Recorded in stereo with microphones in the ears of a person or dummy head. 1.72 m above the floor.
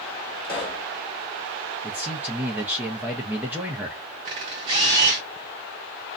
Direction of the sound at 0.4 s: 20° left (ahead or behind).